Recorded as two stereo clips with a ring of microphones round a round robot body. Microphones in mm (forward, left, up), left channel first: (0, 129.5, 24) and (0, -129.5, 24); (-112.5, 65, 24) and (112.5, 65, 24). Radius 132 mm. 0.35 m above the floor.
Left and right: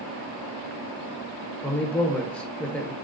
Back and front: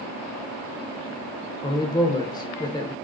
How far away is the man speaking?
About 0.8 m.